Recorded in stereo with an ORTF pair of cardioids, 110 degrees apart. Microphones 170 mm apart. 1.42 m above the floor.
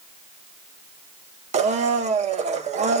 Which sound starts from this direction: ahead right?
A blender, at 1.5 s.